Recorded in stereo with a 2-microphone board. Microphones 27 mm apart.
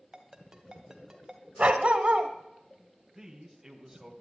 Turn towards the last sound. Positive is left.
turn(degrees=-15)  # may be behind; listen again after turning